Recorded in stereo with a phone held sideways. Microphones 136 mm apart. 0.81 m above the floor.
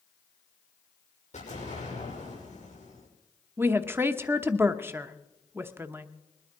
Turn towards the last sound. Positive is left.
turn(degrees=-15)  # may be behind; listen again after turning